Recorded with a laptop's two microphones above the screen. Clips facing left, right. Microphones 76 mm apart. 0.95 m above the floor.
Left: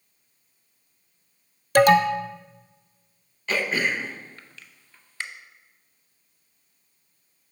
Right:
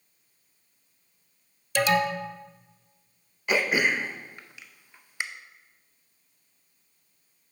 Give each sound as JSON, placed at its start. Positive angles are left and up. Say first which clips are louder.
{"t": 1.8, "sound": "an alarm", "louder": "left 7 dB", "side_deg": 50, "distance_m": 0.6}
{"t": 3.5, "sound": "throat clearing", "louder": "right 1 dB", "side_deg": -15, "distance_m": 0.5}